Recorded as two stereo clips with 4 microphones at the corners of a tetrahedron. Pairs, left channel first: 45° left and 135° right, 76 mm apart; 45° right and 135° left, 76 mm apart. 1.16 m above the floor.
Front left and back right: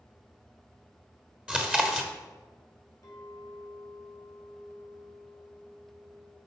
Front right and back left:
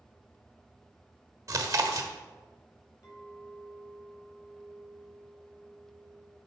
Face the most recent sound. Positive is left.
turn(degrees=0)